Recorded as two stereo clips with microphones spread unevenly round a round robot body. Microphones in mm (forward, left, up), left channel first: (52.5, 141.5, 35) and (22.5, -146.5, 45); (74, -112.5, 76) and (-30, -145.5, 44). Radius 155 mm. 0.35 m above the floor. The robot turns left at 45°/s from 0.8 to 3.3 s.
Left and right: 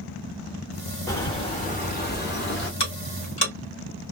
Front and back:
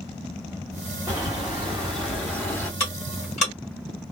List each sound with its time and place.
1.1 s a bird: 155° left, 1.8 m; by 2.7 s 80° left, 1.8 m
2.8 s ticking: 50° left, 1.8 m; by 3.5 s 25° left, 1.8 m